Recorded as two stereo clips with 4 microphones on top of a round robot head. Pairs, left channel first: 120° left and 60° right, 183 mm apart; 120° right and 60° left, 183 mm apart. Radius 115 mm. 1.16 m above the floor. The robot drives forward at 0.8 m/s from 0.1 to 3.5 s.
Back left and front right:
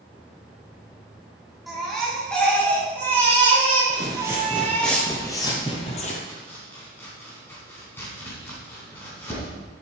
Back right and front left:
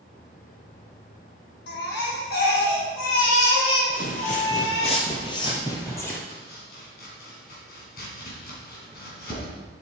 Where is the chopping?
160° right, 3 m.